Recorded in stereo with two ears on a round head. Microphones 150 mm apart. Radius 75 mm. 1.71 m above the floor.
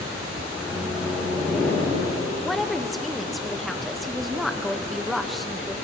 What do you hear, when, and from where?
0.5 s a microwave: centre (ahead or behind), 6 m
2.4 s a woman speaking: centre (ahead or behind), 0.6 m